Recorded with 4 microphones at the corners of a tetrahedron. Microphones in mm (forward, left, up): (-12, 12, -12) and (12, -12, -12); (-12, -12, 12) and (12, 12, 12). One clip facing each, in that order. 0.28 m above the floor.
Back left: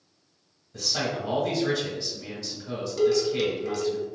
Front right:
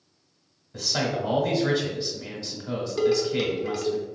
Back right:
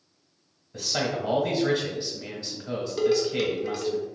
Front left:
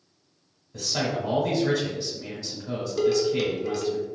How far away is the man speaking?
About 1.5 m.